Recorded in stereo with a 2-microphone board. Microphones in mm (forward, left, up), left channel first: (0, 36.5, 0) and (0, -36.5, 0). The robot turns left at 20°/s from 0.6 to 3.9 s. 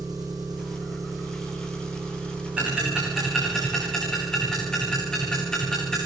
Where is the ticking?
15° right (ahead or behind), 10 m; by 6.0 s 10° left (ahead or behind), 10 m.